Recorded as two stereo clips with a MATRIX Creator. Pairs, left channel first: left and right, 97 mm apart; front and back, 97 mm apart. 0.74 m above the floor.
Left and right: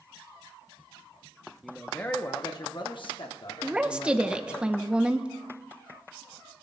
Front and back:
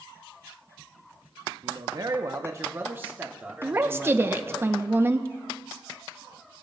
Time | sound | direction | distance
1.6 | a man speaking | 175° right | 0.7 m
3.6 | a woman speaking | 150° right | 0.6 m